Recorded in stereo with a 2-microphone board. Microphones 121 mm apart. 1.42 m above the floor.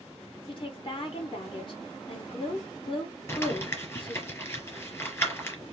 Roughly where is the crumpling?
Left.